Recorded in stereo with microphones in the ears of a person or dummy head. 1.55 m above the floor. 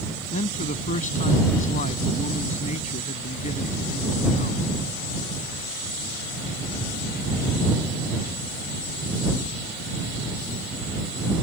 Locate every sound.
0.3 s a man speaking: 45° left (ahead or behind)